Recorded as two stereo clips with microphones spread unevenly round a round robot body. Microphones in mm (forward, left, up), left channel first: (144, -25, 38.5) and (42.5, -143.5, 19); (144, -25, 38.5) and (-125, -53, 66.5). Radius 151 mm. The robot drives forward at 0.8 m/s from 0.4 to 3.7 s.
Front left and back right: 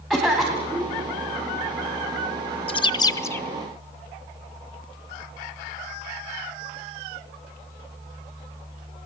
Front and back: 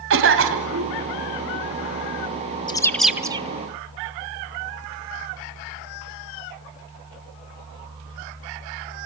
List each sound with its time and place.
0.1 s a cough: 140° left, 3 m; by 1.0 s 150° left, 3 m
2.7 s a bird: 40° left, 1.0 m; by 3.5 s 135° left, 1.0 m